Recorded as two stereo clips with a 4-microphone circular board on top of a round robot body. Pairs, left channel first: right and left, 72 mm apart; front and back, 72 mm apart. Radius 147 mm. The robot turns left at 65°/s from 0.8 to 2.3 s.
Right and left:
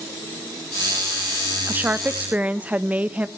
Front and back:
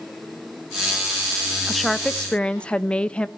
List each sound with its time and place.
1.7 s a woman speaking: 95° left, 0.7 m; by 3.3 s 50° left, 0.7 m